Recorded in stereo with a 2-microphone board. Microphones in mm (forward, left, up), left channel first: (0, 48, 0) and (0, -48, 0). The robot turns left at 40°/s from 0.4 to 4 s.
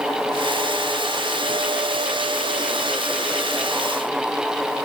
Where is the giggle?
No giggle in this recording.